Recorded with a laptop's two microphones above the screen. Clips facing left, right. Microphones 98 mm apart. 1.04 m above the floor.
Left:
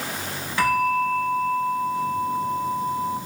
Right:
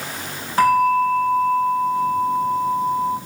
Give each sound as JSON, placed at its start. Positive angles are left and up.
{"t": 0.6, "sound": "a bell", "side_deg": -45, "distance_m": 7.0}